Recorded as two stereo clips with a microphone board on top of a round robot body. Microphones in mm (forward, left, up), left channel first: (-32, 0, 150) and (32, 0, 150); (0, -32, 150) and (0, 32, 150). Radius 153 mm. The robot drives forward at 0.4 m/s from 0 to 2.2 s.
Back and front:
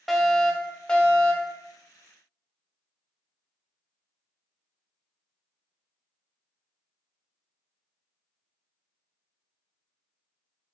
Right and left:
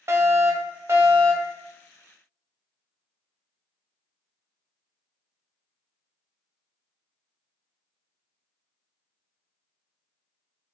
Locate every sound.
0.1 s a fire alarm: 95° left, 1.4 m; by 1.6 s 125° left, 1.6 m